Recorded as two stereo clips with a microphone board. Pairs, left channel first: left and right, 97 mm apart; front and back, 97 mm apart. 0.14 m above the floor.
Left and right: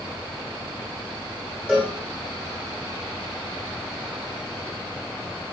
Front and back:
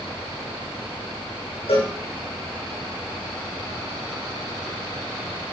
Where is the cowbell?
10° right, 7 m.